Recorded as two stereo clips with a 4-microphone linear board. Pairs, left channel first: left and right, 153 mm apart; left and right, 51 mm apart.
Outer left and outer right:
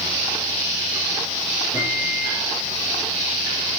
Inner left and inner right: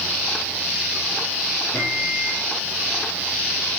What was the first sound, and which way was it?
A microwave, 30° left (ahead or behind).